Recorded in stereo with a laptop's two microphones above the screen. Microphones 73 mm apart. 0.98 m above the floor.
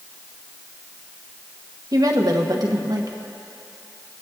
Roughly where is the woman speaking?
Right.